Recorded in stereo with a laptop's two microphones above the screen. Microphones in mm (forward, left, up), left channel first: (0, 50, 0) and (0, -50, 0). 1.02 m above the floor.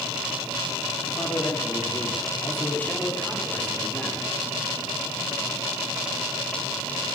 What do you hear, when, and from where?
1.1 s a man speaking: 40° left (ahead or behind), 2 m; by 4.3 s 5° left (ahead or behind), 3.5 m